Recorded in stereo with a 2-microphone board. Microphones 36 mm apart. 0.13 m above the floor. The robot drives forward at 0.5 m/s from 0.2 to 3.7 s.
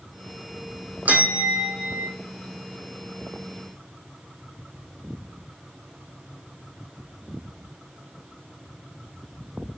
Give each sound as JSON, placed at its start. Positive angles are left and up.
{"t": 1.1, "sound": "a bell", "side_deg": -45, "distance_m": 1.6}